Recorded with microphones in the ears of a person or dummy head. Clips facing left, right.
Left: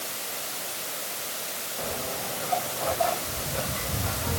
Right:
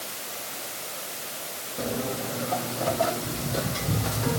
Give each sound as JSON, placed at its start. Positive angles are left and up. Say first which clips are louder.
{"t": 1.8, "sound": "footsteps", "louder": "right 5 dB", "side_deg": -50, "distance_m": 3.5}